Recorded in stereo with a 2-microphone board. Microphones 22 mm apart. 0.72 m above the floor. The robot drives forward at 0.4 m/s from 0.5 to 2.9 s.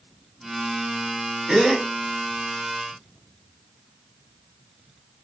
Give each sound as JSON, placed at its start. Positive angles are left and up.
{"t": 1.5, "sound": "a gasp", "side_deg": -50, "distance_m": 2.5}